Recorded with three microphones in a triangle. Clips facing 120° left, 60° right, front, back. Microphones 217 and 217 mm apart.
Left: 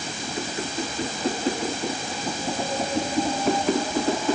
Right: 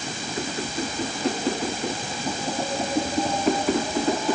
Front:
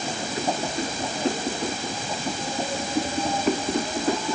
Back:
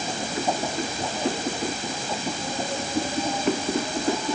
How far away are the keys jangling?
No keys jangling in this recording.